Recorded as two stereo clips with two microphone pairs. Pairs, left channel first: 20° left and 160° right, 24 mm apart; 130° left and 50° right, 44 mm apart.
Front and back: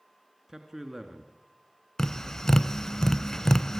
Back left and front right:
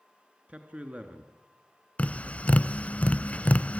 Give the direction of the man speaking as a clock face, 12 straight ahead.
3 o'clock.